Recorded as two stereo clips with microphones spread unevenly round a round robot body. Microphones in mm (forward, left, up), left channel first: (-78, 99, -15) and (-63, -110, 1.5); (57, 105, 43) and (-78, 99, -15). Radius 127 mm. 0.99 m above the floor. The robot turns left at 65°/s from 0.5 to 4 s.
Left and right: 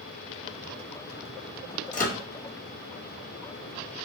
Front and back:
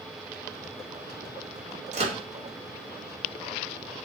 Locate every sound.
1.9 s a microwave: 150° left, 1.1 m; by 2.2 s 130° left, 1.1 m